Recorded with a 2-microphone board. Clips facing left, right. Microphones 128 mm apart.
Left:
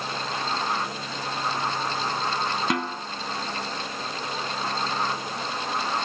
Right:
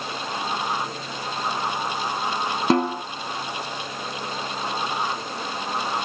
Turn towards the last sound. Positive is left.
turn(degrees=-35)  # may be behind; listen again after turning